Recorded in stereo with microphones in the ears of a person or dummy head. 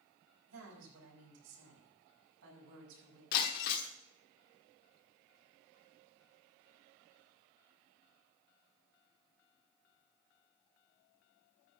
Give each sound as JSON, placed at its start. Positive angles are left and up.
{"t": 0.5, "sound": "a woman speaking", "side_deg": -90, "distance_m": 5.5}
{"t": 3.3, "sound": "breaking glass", "side_deg": 55, "distance_m": 1.3}